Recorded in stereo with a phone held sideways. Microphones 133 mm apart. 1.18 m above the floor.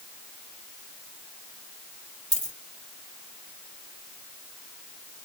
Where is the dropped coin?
30° right (ahead or behind), 1.3 m.